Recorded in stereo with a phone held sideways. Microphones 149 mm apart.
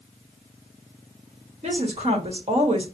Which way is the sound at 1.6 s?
45° right (ahead or behind).